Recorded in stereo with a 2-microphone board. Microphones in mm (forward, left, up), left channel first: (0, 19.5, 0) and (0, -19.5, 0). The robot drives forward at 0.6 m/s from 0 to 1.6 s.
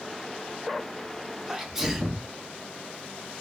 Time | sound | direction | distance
1.5 | a sneeze | 10° right (ahead or behind) | 0.8 m